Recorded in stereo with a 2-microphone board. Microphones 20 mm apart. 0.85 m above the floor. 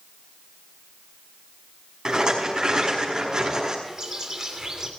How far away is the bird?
About 2.5 m.